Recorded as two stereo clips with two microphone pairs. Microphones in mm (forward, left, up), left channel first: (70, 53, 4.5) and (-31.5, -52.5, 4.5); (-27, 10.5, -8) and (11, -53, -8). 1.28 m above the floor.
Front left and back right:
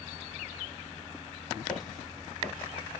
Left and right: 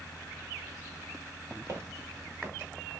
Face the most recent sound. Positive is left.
turn(degrees=-20)